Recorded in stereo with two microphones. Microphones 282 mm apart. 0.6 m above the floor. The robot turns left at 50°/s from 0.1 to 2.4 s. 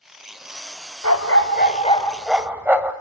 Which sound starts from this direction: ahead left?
A dog barking, at 1.0 s.